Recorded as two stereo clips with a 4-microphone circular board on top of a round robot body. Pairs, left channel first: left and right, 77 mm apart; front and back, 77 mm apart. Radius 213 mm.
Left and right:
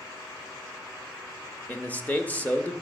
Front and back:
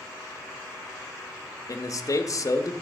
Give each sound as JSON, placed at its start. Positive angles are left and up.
{"t": 1.7, "sound": "a man speaking", "azimuth_deg": 25, "distance_m": 1.0}